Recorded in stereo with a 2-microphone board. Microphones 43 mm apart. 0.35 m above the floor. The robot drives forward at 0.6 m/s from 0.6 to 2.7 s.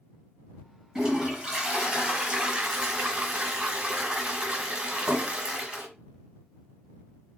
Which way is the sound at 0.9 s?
15° right (ahead or behind).